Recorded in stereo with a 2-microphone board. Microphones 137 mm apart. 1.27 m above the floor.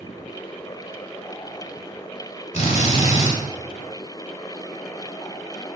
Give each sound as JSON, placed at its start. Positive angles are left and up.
{"t": 2.5, "sound": "a drill", "side_deg": 50, "distance_m": 4.5}